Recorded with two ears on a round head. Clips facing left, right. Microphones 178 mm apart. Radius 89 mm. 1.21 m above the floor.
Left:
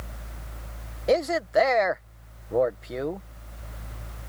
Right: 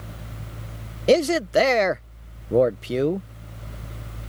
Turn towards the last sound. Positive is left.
turn(degrees=-40)  # may be behind; listen again after turning